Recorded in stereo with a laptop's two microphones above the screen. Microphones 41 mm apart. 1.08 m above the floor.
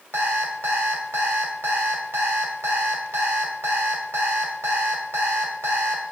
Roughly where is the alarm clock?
Right.